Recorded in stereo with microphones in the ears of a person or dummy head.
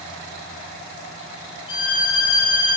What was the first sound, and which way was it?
A violin, 30° left (ahead or behind).